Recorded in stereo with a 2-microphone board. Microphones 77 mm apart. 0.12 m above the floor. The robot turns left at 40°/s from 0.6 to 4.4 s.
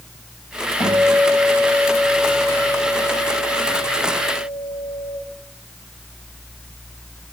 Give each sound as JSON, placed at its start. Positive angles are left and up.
{"t": 0.8, "sound": "a guitar", "azimuth_deg": 125, "distance_m": 5.5}